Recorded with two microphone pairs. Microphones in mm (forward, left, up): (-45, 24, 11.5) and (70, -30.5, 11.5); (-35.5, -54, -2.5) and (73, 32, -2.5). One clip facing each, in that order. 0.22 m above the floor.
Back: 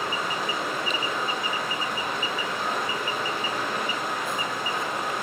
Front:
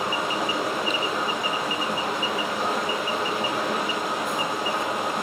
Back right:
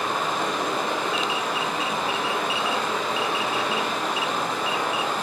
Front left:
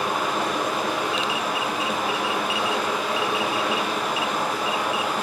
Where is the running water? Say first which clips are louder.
Front 3 dB, front left 1 dB; 40° right, 4.5 m.